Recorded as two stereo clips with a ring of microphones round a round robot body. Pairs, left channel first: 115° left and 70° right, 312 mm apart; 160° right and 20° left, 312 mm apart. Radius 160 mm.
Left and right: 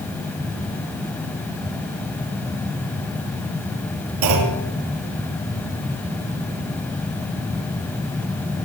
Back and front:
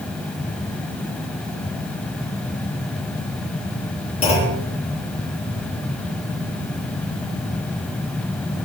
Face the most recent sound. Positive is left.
turn(degrees=-85)